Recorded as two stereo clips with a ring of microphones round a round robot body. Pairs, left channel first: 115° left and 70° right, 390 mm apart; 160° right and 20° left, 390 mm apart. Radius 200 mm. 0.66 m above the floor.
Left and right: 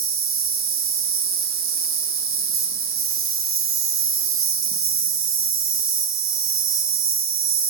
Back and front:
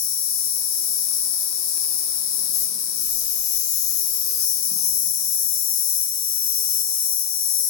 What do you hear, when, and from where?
0.0 s an insect: 120° right, 2 m